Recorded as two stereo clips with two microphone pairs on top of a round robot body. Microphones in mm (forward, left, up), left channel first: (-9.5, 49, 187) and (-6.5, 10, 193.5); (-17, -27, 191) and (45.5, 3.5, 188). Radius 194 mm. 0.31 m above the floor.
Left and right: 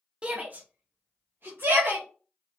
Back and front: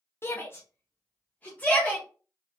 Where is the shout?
145° right, 0.9 m; by 2.0 s 80° right, 1.6 m.